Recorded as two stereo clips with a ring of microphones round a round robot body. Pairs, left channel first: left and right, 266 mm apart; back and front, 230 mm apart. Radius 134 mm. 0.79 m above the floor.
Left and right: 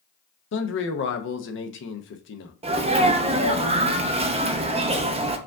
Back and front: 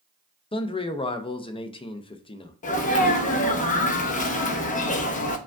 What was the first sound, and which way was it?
A man speaking, 120° left.